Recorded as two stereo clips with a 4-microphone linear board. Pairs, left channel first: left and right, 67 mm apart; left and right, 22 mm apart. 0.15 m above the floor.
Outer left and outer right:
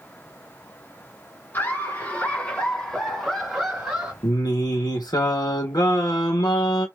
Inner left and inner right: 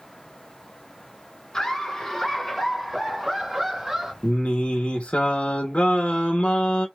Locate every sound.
1.5 s laughter: 35° left (ahead or behind), 1.9 m; by 4.1 s 10° right (ahead or behind), 1.8 m
4.2 s singing: 85° left, 1.1 m